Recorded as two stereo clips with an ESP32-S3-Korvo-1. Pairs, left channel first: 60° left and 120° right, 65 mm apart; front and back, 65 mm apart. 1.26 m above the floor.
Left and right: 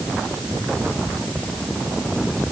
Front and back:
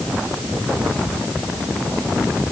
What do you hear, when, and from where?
Only background noise.